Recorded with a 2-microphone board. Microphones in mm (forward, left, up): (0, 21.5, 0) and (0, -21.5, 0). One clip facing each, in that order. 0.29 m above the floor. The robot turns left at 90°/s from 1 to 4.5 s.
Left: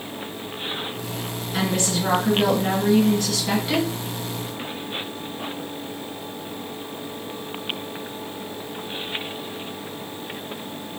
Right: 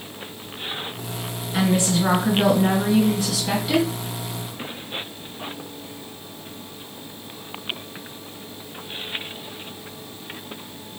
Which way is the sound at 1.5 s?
15° right.